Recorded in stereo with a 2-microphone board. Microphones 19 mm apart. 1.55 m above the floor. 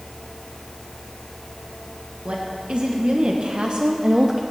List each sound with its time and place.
2.2 s a woman speaking: 85° right, 1.9 m; by 4.4 s 40° right (ahead or behind), 0.8 m